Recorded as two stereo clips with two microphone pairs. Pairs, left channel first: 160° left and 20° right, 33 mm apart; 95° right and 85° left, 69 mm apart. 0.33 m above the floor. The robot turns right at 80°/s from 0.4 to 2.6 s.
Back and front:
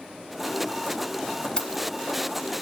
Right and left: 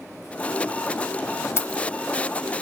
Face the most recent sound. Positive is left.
turn(degrees=-60)